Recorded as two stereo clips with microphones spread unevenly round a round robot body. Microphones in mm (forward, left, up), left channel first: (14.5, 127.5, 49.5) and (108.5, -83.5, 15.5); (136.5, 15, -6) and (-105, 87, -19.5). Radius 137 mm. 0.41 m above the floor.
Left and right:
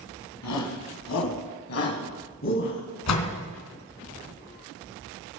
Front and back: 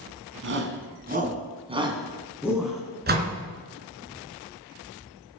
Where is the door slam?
115° left, 3.5 m.